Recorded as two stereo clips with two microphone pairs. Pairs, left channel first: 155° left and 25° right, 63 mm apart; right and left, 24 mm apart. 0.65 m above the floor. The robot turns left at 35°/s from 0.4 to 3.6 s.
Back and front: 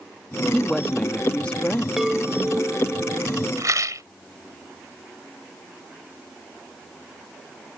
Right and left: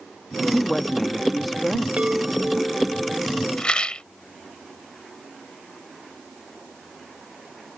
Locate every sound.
0.5 s a woman speaking: 140° right; by 1.9 s 175° left
2.0 s a chime: 60° left; by 3.5 s 10° left
3.6 s a rattle: 45° right